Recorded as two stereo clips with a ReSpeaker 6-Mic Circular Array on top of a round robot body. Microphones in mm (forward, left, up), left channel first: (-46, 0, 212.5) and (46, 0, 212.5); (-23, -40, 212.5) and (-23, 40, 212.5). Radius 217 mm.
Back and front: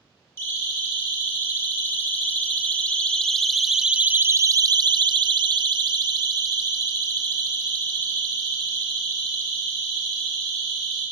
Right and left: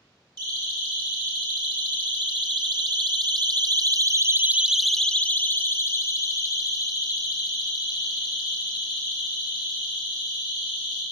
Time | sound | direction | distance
0.4 | a siren | 115° left | 4.5 m